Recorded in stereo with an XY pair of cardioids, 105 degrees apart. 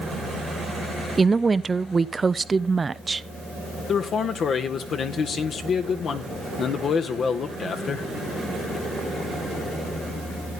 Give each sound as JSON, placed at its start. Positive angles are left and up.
{"t": 1.2, "sound": "a woman speaking", "azimuth_deg": -25, "distance_m": 0.6}
{"t": 3.9, "sound": "a man speaking", "azimuth_deg": 55, "distance_m": 1.6}